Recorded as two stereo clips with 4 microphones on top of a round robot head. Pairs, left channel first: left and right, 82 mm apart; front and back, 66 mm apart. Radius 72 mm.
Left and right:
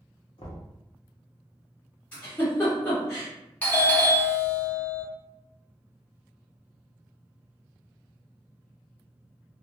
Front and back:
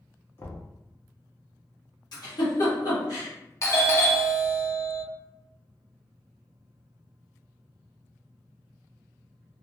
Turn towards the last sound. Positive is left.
turn(degrees=25)